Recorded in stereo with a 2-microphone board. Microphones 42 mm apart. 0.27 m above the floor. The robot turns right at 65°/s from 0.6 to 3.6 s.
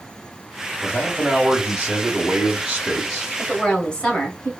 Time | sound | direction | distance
0.8 | a man speaking | 15° right (ahead or behind) | 1.0 m
3.4 | a woman speaking | 15° left (ahead or behind) | 1.1 m